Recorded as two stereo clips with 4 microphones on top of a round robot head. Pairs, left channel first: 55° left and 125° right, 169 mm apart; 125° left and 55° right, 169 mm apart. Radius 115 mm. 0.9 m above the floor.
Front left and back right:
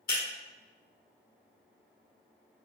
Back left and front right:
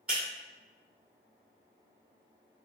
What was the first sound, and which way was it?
Breaking glass, 25° left.